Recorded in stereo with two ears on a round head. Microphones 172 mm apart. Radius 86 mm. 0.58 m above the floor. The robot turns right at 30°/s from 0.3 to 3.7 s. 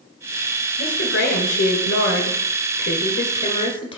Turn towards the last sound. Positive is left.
turn(degrees=150)